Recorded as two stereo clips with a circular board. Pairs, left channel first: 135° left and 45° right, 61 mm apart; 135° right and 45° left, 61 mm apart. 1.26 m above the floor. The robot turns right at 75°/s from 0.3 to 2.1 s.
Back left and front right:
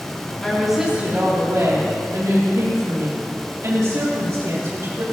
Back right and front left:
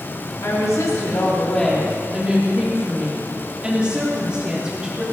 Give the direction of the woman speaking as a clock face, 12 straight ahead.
5 o'clock.